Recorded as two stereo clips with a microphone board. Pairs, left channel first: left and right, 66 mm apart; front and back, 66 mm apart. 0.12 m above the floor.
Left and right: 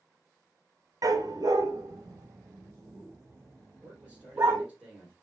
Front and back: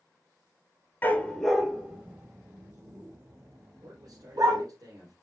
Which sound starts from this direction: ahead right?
A dog barking, at 1.0 s.